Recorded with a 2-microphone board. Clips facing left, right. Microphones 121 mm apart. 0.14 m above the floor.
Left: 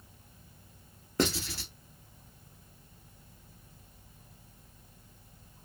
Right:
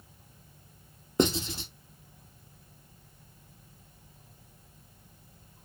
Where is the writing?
20° right (ahead or behind), 0.8 m.